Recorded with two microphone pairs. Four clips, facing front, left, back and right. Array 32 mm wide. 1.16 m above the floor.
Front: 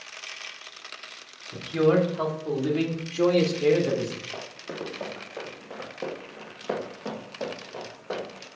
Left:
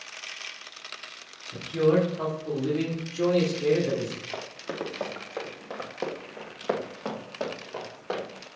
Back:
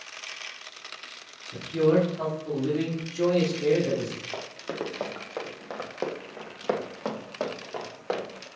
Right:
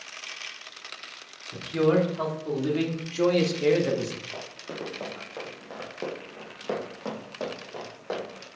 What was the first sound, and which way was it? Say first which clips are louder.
A man speaking: even, front 1 dB; 35° right.